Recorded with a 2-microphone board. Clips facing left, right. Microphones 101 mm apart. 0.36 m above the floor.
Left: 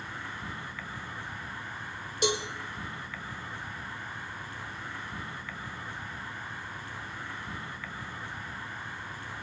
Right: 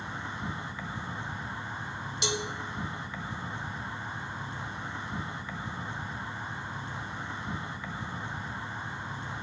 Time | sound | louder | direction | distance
0.0 | an insect | right 3 dB | 20° right (ahead or behind) | 1.2 m
2.2 | a cowbell | left 4 dB | 45° left (ahead or behind) | 2 m